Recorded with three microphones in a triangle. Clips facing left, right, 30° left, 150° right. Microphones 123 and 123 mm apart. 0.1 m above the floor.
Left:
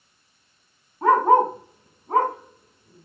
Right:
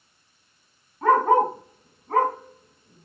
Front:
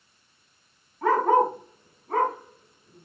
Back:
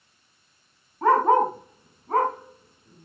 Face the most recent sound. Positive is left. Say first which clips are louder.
# left 2 dB, back 2 dB
turn(degrees=150)